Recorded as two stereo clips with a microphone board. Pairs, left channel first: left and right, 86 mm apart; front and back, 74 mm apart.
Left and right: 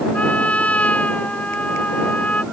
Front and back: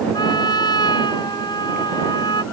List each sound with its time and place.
0.1 s a trumpet: 15° left